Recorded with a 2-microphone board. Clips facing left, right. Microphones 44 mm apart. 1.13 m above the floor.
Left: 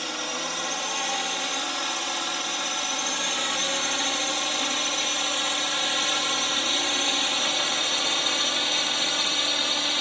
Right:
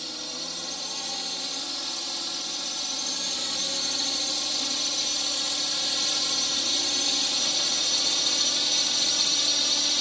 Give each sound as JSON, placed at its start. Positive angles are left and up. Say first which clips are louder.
{"t": 0.0, "sound": "a drone", "louder": "left 7 dB", "side_deg": 55}